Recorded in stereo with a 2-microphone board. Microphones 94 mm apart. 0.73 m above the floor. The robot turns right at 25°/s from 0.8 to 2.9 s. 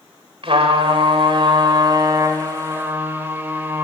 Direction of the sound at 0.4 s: 75° right.